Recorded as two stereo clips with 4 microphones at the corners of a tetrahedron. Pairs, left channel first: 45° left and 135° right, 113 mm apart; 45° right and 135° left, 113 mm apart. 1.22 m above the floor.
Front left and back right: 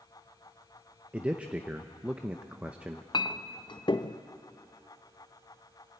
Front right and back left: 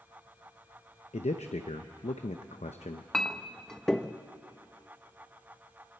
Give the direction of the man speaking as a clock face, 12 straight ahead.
2 o'clock.